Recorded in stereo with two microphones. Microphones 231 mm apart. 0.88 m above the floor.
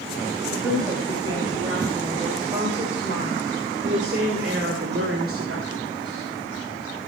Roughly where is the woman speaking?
Centre.